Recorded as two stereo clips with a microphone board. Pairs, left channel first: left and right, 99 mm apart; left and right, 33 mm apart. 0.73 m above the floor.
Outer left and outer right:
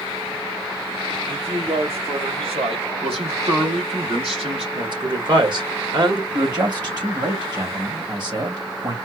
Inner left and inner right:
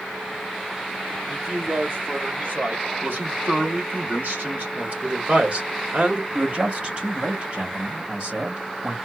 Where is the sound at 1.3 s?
70° right (ahead or behind), 2.5 m.